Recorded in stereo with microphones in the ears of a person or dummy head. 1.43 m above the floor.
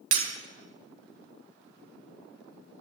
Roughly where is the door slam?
No door slam in this recording.